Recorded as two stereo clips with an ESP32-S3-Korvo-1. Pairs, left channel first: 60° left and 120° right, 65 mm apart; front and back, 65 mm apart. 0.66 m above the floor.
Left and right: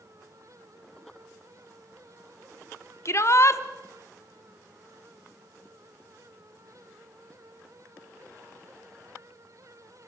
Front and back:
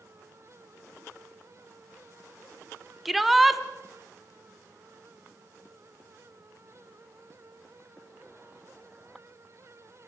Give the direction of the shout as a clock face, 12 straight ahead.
9 o'clock.